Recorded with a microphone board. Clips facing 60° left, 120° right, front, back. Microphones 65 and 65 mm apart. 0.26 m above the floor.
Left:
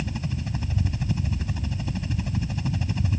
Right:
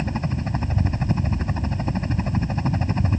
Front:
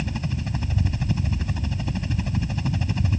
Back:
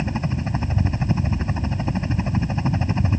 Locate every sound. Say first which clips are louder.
0.0 s a helicopter: right 5 dB, back 4 dB; 135° right